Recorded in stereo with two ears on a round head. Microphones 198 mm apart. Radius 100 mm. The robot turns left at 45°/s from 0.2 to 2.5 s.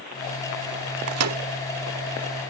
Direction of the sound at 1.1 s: 65° right (ahead or behind).